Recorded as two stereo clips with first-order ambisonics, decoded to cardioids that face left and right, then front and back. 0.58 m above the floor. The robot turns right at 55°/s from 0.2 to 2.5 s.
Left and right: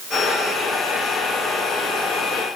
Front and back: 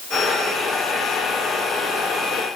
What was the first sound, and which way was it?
Only background noise.